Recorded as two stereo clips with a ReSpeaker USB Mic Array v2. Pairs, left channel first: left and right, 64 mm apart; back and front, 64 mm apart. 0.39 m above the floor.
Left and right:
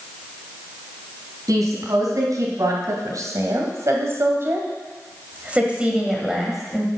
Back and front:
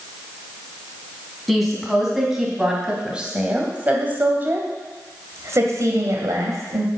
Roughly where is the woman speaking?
Right.